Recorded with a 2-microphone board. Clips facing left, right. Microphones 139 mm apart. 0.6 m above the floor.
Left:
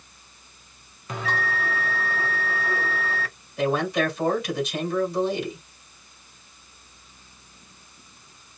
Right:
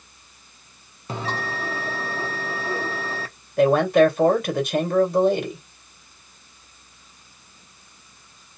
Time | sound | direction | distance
1.1 | a bell | 30° right (ahead or behind) | 0.9 m
3.6 | a man speaking | 55° right (ahead or behind) | 2 m